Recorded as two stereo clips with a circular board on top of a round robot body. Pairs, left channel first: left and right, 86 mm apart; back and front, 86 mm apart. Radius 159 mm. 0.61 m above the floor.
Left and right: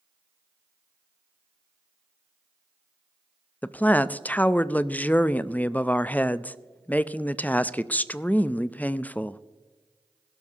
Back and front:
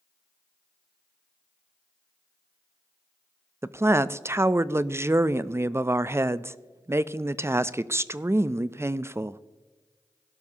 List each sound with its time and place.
3.6 s a woman speaking: 30° left, 0.6 m